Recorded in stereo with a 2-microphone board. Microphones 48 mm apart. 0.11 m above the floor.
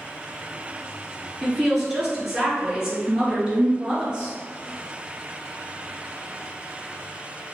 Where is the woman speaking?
5° right (ahead or behind), 2.0 m; by 4.3 s 15° right (ahead or behind), 3 m.